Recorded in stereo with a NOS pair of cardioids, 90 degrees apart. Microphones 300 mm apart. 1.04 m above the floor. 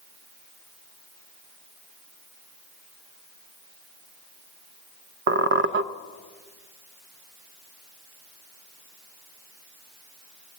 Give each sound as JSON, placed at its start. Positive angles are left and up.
{"t": 5.3, "sound": "a squeak", "azimuth_deg": -40, "distance_m": 0.7}